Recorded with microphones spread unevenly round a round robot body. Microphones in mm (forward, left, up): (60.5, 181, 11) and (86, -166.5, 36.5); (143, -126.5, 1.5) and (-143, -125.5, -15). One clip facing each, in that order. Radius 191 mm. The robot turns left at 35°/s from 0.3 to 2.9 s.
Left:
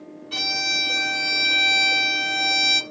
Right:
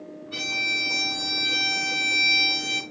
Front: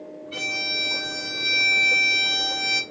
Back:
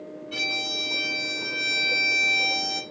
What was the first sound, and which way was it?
A violin, 110° left.